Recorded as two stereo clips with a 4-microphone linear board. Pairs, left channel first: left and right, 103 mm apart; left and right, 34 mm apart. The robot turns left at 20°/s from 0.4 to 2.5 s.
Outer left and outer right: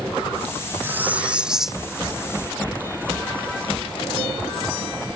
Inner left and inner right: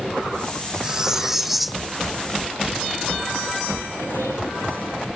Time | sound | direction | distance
0.8 | cutlery clinking | 20° right (ahead or behind) | ?